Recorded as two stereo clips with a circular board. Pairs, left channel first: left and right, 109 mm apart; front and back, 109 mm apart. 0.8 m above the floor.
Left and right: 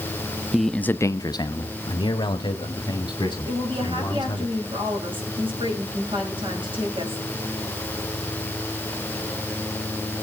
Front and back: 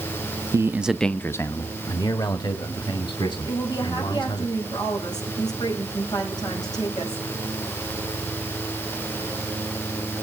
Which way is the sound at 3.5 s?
50° right.